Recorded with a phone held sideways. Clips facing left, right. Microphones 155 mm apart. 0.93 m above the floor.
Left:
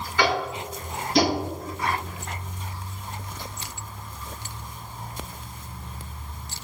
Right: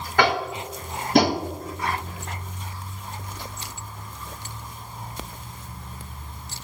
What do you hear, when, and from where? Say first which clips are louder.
0.2 s tapping: right 2 dB; 60° right (ahead or behind), 1.1 m